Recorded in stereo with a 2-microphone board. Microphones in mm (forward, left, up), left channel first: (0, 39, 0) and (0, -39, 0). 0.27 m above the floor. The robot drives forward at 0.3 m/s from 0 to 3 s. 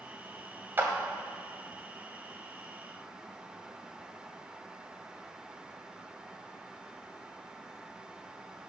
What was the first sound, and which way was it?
A clap, 30° right (ahead or behind).